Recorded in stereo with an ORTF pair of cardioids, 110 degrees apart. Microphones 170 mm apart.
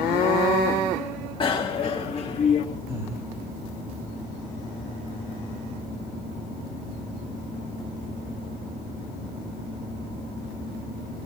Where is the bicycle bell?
30° left, 2 m; by 2.6 s 40° left, 3 m.